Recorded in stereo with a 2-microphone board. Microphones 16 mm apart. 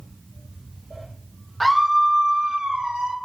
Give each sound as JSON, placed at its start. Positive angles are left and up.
{"t": 1.6, "sound": "a scream", "side_deg": 10, "distance_m": 0.6}